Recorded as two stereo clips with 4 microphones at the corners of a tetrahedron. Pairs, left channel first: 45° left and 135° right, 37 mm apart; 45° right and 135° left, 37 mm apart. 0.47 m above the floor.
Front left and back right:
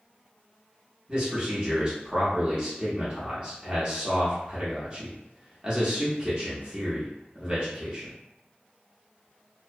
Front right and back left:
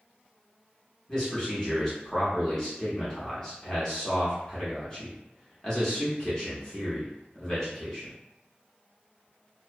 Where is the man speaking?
100° right, 0.8 m.